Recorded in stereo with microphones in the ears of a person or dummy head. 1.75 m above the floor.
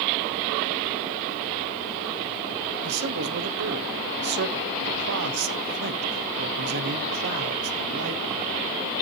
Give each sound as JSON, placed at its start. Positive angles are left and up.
{"t": 2.8, "sound": "a man speaking", "side_deg": -55, "distance_m": 1.0}